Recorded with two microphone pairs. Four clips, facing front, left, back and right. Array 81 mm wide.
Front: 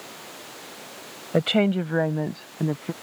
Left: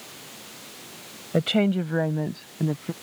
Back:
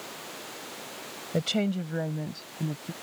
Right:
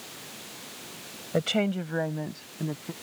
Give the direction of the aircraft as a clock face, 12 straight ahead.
No aircraft in this recording.